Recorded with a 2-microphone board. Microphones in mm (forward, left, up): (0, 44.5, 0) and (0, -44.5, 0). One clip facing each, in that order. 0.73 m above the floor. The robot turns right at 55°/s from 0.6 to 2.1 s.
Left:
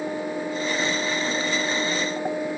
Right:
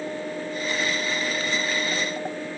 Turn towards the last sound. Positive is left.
No sound to turn to.